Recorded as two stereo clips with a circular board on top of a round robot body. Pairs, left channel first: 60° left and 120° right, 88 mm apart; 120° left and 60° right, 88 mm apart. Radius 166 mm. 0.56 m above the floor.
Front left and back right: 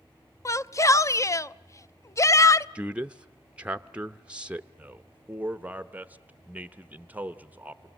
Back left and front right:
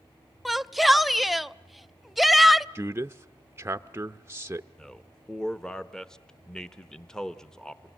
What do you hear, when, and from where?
0.5 s a shout: 30° left, 0.7 m
2.8 s a man speaking: 60° right, 0.7 m
4.8 s a man speaking: 165° right, 1.1 m